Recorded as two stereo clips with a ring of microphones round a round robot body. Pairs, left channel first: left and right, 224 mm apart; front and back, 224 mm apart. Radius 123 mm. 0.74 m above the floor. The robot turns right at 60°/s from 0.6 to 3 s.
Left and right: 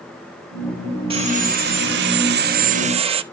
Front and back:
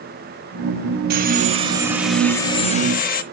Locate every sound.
1.1 s sawing: 150° right, 0.6 m; by 3.2 s 35° right, 0.6 m